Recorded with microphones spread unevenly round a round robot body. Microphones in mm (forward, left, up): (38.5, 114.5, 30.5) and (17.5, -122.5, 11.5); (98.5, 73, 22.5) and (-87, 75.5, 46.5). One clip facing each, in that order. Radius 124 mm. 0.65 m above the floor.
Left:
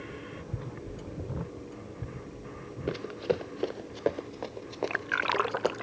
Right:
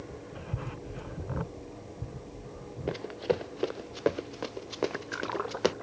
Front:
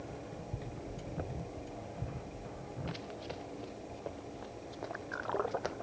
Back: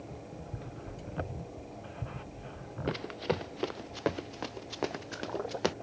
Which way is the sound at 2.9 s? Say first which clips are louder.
Even, back 14 dB; 160° left.